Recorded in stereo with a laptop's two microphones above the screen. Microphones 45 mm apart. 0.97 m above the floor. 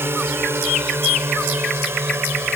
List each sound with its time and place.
0.0 s a drone: 70° right (ahead or behind); by 2.6 s 75° right (ahead or behind)